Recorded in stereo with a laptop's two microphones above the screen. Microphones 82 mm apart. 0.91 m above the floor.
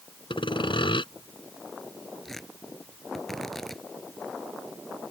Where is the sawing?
85° left.